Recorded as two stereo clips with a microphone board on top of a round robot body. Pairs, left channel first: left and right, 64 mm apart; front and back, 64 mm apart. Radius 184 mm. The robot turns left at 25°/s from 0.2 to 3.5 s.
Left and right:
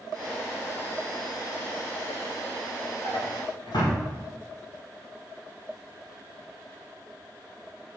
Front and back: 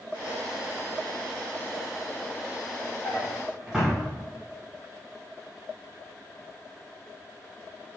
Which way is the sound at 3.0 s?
110° left.